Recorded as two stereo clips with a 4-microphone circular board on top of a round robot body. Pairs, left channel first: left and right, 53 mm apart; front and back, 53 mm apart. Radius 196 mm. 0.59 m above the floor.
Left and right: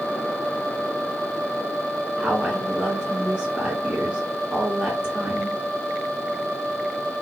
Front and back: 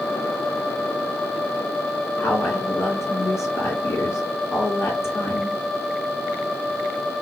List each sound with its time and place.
2.2 s a woman speaking: 25° right, 2.5 m